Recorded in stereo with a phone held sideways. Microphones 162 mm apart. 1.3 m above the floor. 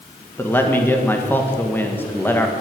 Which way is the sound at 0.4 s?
10° left (ahead or behind).